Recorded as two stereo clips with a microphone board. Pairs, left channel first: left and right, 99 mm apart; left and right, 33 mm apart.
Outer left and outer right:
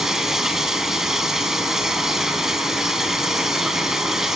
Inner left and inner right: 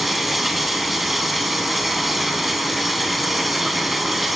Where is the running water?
5° right (ahead or behind), 3 m.